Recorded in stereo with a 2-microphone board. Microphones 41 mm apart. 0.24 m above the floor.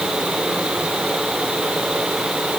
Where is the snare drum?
No snare drum in this recording.